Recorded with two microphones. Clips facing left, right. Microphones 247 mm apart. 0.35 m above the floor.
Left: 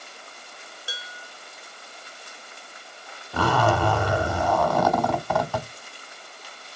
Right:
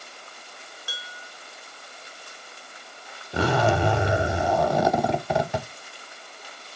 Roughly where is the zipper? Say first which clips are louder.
Right 1 dB; right.